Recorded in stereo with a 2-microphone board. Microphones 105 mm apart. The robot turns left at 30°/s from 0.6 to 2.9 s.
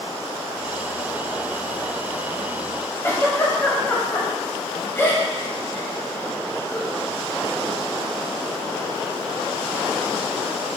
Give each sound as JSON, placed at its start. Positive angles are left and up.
{"t": 3.0, "sound": "a giggle", "side_deg": 25, "distance_m": 0.6}